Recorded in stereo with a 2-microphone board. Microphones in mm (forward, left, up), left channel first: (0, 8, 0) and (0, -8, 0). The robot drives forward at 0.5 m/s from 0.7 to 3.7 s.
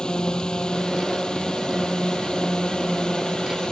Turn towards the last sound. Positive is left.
turn(degrees=55)  # may be behind; listen again after turning